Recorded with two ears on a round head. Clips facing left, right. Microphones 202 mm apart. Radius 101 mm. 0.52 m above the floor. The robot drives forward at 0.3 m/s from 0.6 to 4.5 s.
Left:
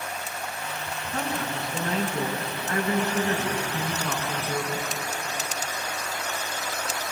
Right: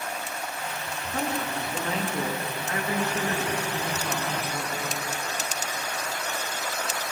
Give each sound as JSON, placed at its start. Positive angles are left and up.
{"t": 1.1, "sound": "a woman speaking", "side_deg": 30, "distance_m": 5.5}